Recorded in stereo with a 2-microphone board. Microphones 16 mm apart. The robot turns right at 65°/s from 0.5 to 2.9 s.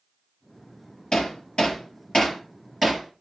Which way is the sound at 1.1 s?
70° left (ahead or behind).